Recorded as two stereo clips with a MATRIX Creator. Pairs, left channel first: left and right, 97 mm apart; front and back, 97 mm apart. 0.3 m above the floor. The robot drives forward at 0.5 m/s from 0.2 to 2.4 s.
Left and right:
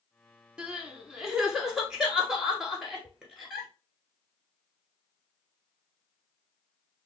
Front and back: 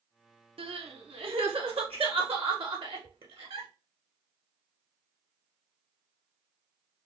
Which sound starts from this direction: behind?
Crying, at 0.6 s.